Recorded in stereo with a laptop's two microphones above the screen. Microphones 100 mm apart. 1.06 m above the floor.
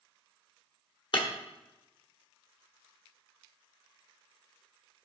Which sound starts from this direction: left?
Breaking glass, at 1.1 s.